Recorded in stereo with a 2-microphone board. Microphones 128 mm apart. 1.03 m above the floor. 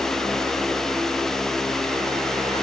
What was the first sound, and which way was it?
Only background noise.